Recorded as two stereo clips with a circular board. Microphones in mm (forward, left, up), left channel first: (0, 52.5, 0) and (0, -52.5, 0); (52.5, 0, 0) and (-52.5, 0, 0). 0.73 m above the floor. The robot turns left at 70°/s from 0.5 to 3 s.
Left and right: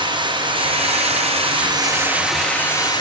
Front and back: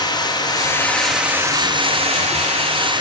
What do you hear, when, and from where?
0.0 s running water: 50° right, 5.5 m; by 3.0 s 135° left, 5.5 m